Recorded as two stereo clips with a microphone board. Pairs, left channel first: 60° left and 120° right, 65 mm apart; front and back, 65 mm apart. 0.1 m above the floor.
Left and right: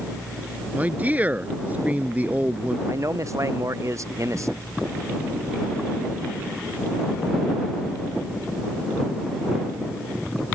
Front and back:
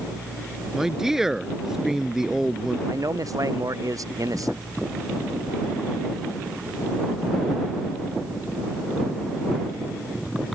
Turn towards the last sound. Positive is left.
turn(degrees=-155)